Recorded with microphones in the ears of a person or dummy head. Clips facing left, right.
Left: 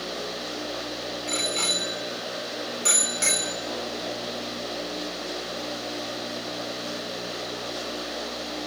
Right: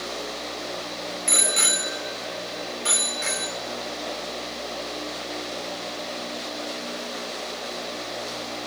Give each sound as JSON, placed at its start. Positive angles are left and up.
{"t": 1.3, "sound": "a bicycle bell", "side_deg": -20, "distance_m": 2.0}